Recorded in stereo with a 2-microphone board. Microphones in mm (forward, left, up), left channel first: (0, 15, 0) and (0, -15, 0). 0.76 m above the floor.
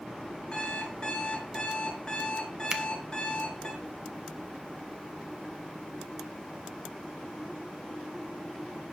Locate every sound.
0.5 s an alarm clock: 35° left (ahead or behind), 7 m
2.7 s a finger snap: 30° right (ahead or behind), 1.5 m